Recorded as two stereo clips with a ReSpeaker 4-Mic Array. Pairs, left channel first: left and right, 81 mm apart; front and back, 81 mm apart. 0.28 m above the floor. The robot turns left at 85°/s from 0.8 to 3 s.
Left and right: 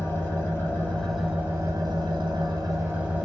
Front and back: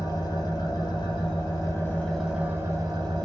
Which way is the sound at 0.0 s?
30° left.